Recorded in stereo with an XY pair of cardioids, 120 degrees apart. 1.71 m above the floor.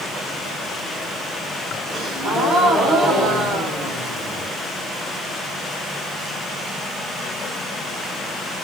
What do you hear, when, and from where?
1.9 s a gasp: 60° right, 1.6 m